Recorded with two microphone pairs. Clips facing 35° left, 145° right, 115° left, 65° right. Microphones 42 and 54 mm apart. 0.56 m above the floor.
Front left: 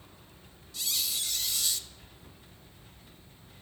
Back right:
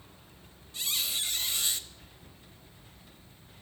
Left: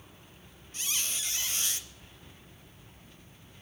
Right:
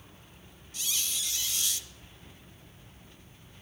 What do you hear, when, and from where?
0.7 s a squeak: 160° left, 0.6 m